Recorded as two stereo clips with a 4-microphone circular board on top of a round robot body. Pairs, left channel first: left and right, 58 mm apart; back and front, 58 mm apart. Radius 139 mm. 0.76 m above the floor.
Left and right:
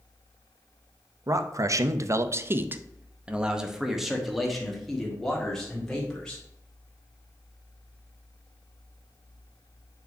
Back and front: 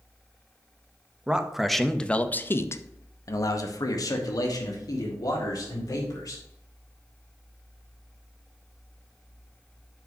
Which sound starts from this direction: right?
A man speaking, at 1.3 s.